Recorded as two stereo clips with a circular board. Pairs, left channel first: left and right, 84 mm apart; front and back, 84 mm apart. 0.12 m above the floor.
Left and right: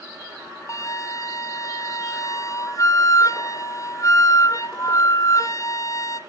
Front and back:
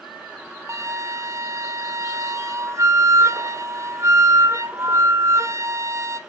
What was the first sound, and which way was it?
A flute, 135° left.